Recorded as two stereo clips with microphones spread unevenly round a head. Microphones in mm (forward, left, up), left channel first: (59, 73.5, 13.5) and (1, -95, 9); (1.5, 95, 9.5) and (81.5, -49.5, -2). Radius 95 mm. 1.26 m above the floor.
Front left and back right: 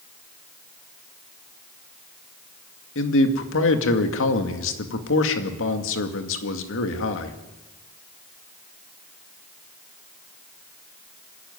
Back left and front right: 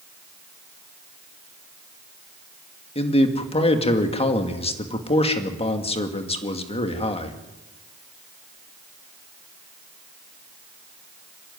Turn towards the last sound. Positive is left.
turn(degrees=65)